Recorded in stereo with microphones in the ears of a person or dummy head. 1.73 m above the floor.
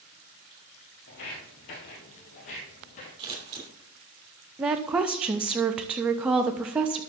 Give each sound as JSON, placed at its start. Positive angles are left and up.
{"t": 1.1, "sound": "footsteps", "side_deg": 25, "distance_m": 1.9}
{"t": 3.2, "sound": "scissors", "side_deg": -30, "distance_m": 3.0}
{"t": 4.6, "sound": "a woman speaking", "side_deg": -10, "distance_m": 0.5}